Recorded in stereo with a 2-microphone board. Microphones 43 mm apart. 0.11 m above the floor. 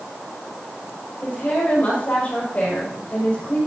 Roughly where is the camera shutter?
No camera shutter in this recording.